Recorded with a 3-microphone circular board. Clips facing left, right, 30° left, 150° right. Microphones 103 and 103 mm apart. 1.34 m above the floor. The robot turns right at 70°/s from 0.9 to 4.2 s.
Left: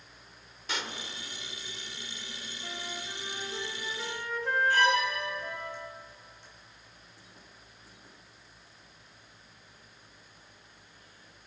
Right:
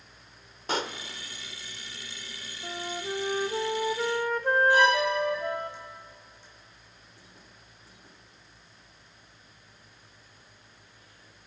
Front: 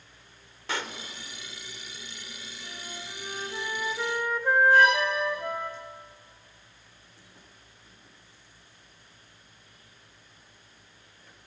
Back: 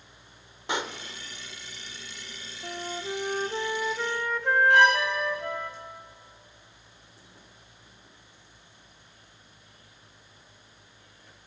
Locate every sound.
0.7 s a pop: 90° right, 1.2 m; by 1.0 s 85° right, 1.2 m
2.6 s a flute: 160° right, 1.3 m; by 5.7 s 50° right, 1.3 m
4.7 s a violin: 165° right, 10 m